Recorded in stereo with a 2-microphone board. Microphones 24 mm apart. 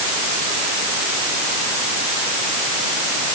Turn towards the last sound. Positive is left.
No sound to turn to.